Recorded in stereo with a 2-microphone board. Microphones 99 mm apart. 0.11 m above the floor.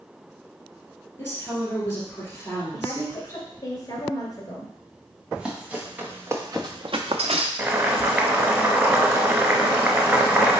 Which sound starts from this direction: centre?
Running footsteps, at 5.3 s.